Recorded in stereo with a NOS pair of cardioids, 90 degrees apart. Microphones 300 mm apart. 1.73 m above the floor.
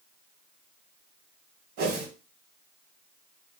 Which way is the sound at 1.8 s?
50° right.